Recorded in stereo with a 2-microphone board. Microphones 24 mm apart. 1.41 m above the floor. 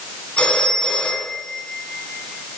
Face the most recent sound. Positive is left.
turn(degrees=60)  # may be behind; listen again after turning